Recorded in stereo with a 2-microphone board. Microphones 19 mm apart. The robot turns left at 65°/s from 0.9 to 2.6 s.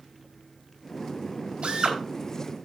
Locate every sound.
1.6 s a drill: 70° right (ahead or behind), 4 m; by 2.0 s 45° right (ahead or behind), 4 m